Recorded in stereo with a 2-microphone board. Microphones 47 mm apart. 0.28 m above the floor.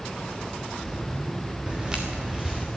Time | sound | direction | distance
1.7 | footsteps | 20° right (ahead or behind) | 2 m